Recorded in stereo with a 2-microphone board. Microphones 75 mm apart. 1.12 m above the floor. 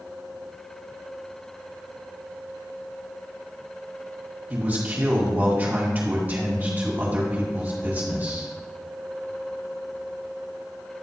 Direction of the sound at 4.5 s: 25° right (ahead or behind).